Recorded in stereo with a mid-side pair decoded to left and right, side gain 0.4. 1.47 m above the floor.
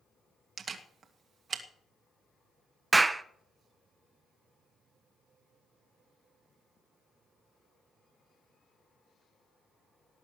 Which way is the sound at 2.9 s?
20° right.